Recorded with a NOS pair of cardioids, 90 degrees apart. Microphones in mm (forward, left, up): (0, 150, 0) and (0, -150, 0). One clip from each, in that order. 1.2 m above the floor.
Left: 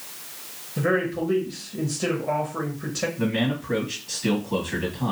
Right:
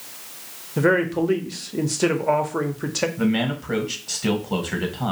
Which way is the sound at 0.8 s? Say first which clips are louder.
Right 4 dB; 35° right.